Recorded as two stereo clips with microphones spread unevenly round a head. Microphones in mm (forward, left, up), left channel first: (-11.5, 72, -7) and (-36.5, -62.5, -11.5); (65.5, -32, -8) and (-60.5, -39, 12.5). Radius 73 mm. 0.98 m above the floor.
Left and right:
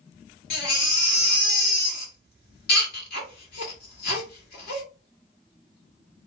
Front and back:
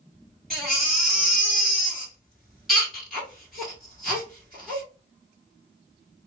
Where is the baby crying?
90° left, 1.9 m.